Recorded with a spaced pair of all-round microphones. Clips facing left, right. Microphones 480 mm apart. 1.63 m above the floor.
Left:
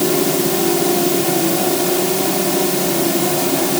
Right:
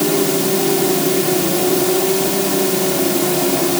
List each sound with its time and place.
Only background noise.